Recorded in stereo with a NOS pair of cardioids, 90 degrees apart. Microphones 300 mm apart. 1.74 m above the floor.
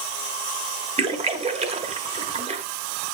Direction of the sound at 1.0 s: 20° right.